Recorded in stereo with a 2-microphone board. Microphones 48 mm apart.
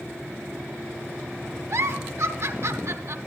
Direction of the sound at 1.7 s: 75° right (ahead or behind).